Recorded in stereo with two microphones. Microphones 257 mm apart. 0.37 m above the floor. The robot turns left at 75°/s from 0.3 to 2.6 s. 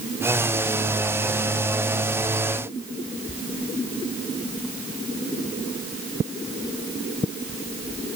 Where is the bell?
No bell in this recording.